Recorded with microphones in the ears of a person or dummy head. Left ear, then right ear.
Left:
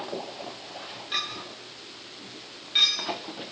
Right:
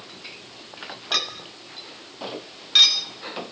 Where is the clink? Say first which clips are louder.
Right 5 dB; 40° right (ahead or behind), 1.5 m.